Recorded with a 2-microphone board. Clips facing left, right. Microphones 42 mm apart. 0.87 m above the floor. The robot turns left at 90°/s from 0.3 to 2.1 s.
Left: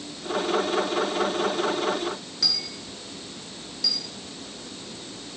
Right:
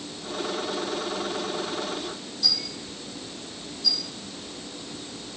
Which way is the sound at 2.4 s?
80° left.